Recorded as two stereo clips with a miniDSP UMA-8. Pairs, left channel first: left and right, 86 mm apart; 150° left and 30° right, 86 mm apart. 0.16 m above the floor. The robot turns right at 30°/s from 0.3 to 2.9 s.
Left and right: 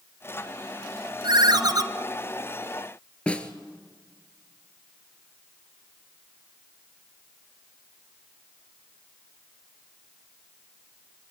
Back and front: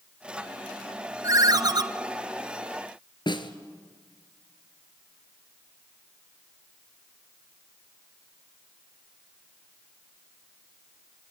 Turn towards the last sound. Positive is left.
turn(degrees=165)